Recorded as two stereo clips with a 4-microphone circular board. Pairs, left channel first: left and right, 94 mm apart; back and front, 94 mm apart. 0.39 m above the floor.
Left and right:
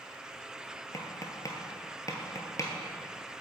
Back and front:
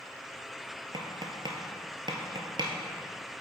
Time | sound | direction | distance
0.9 | tapping | 35° left | 1.2 m